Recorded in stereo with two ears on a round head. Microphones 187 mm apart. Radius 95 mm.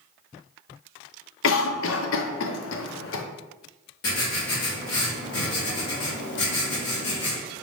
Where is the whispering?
No whispering in this recording.